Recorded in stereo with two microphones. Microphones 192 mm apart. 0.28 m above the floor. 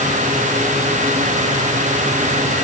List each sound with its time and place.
Only background noise.